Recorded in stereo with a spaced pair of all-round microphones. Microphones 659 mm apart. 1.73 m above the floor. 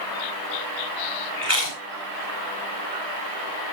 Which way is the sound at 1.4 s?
55° right (ahead or behind).